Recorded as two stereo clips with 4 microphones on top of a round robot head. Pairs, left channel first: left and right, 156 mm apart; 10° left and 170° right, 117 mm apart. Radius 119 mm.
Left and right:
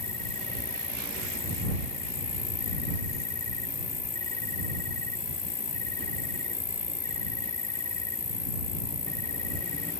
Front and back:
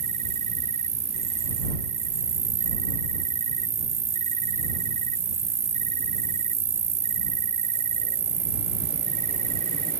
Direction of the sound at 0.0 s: 165° left.